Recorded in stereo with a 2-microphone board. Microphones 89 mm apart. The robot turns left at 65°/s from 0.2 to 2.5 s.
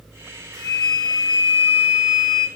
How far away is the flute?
About 1.9 m.